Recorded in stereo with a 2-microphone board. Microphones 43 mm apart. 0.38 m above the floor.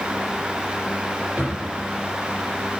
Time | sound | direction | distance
1.4 | a drawer | 65° right (ahead or behind) | 5.5 m